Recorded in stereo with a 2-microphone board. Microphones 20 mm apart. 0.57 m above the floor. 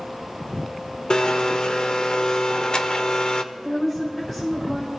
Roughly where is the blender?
Left.